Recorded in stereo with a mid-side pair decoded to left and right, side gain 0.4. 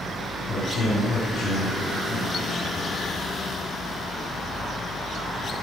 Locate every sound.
0.4 s a man speaking: 65° left, 5 m